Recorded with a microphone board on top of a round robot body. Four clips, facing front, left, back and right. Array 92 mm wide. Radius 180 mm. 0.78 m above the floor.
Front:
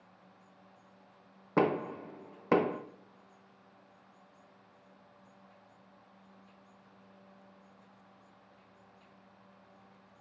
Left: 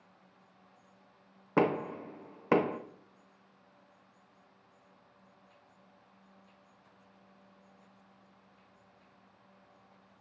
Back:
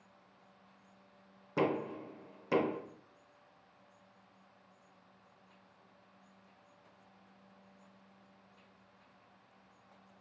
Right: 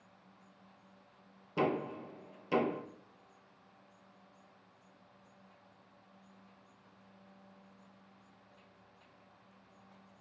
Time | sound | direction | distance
1.6 | knocking | 55° left | 0.5 m